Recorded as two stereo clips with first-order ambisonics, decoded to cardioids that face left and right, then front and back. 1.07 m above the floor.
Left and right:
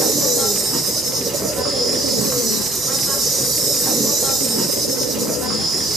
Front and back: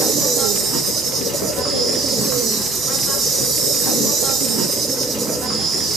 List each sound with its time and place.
0.0 s an insect: 150° right, 1.0 m